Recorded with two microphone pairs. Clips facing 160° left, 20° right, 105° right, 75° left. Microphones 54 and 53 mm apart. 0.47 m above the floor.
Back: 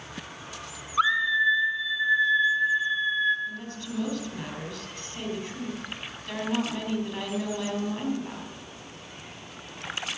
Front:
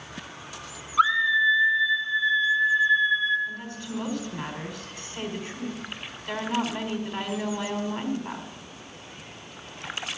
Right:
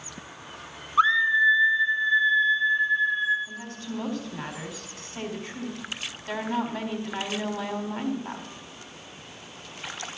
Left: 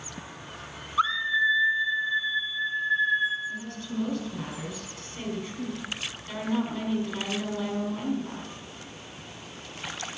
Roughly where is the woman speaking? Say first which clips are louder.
Front 1 dB, left 1 dB; right.